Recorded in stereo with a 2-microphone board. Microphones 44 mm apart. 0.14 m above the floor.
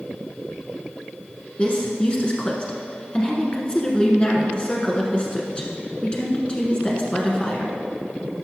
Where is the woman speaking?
25° left (ahead or behind), 1.3 m.